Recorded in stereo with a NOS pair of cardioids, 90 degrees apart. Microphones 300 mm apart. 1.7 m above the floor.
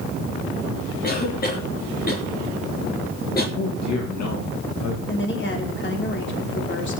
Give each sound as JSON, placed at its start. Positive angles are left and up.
{"t": 1.0, "sound": "a cough", "azimuth_deg": 30, "distance_m": 3.5}
{"t": 3.5, "sound": "a man speaking", "azimuth_deg": 60, "distance_m": 3.0}
{"t": 5.1, "sound": "a woman speaking", "azimuth_deg": 40, "distance_m": 5.0}